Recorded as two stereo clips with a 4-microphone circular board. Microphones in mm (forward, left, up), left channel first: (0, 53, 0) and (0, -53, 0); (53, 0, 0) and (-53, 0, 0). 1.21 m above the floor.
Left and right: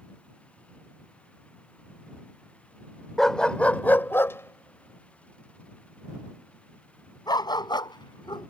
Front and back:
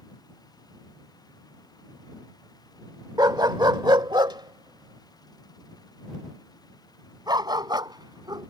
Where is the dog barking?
175° left; by 8.5 s 135° left.